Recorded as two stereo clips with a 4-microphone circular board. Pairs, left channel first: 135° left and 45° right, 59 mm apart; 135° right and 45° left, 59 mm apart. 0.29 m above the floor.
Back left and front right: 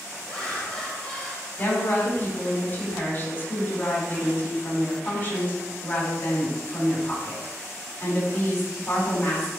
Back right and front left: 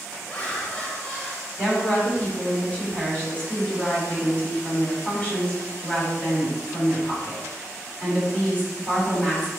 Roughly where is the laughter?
Behind.